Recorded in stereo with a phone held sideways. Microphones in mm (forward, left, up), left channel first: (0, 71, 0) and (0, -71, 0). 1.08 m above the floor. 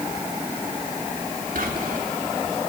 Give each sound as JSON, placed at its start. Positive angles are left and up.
{"t": 1.6, "sound": "whispering", "side_deg": -80, "distance_m": 3.0}